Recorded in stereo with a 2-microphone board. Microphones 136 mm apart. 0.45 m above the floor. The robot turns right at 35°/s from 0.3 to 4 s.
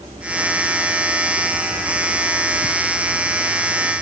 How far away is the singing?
No singing in this recording.